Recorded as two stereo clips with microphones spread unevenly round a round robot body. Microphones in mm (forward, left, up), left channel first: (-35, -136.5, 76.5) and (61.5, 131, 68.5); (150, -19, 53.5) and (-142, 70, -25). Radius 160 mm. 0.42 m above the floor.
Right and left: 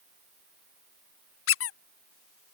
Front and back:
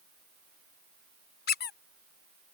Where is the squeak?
85° right.